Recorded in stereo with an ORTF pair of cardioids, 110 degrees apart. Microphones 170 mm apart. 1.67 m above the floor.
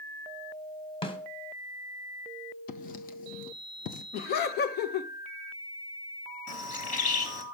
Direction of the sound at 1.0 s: 30° left.